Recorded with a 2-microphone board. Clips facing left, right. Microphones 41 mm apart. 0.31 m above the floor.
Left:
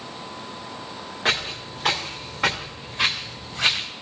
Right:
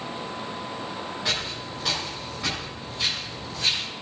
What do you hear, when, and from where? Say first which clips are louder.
1.2 s footsteps: left 7 dB; 40° left (ahead or behind), 2.5 m; by 3.9 s 65° left (ahead or behind), 1.8 m